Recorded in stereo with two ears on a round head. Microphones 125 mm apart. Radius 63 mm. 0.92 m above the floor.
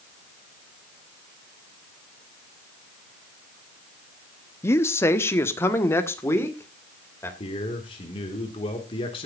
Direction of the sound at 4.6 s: 20° left (ahead or behind).